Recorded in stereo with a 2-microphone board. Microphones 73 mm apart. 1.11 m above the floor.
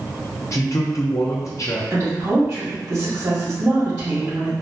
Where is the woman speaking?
60° right (ahead or behind), 1.2 m.